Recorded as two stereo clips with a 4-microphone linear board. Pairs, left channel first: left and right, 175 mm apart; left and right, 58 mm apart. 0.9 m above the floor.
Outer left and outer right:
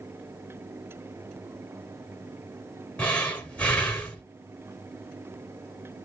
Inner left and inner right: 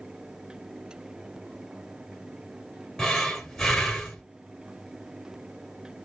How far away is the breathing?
About 1.7 m.